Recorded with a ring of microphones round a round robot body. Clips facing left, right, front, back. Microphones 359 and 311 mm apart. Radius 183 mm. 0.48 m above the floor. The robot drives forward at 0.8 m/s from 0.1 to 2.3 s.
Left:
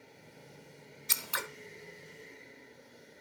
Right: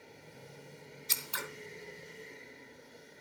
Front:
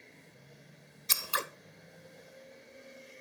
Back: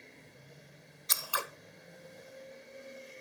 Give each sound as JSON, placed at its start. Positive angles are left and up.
{"t": 1.1, "sound": "scissors", "azimuth_deg": 55, "distance_m": 1.3}